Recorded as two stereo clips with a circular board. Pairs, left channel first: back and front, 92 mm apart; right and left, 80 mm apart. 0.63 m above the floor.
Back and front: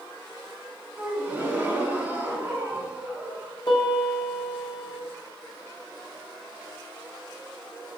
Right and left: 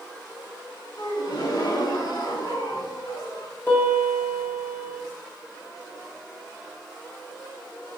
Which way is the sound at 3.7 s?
150° right.